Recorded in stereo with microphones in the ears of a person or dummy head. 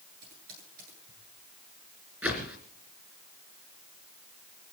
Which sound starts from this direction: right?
Typing on a keyboard, at 0.2 s.